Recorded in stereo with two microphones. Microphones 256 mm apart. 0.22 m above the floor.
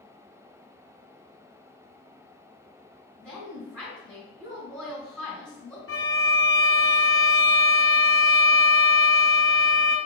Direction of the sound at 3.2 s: 5° left (ahead or behind).